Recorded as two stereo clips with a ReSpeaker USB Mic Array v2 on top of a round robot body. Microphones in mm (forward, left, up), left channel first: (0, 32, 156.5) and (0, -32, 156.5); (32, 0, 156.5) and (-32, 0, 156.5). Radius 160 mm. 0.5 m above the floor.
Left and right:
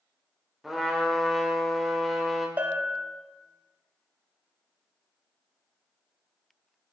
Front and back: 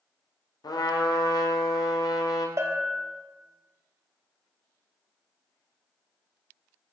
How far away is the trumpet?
About 1.2 m.